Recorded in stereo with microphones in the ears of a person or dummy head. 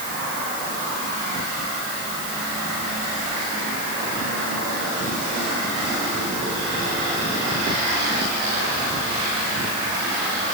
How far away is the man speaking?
No man speaking in this recording.